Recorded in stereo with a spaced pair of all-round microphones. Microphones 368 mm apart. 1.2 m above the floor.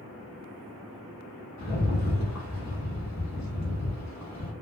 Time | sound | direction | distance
1.6 | a rattle | 50° left (ahead or behind) | 0.9 m